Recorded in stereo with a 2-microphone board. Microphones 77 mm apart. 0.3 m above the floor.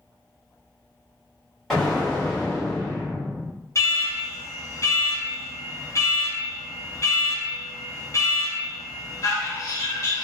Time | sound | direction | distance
1.7 | an explosion | 5° left (ahead or behind) | 1.5 m
3.8 | an alarm | 45° left (ahead or behind) | 0.7 m